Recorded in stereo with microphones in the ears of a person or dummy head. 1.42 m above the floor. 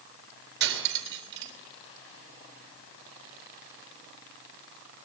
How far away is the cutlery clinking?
About 3.5 m.